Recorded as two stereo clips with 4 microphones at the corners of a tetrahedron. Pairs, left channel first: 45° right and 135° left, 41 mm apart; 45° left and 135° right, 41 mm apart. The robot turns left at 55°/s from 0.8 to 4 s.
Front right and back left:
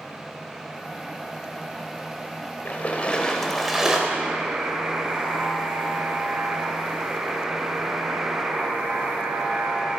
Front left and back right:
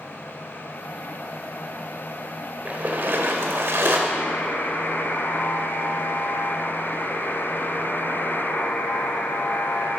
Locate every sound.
2.6 s a splash: 85° right, 1.5 m; by 4.0 s 155° right, 1.5 m
4.1 s a buzzer: 80° left, 2 m